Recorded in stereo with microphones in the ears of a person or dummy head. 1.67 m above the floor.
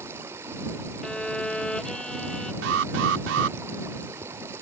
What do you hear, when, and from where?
0.0 s running water: 20° right (ahead or behind)
1.0 s a violin: centre (ahead or behind)
2.6 s an alarm: 75° right (ahead or behind)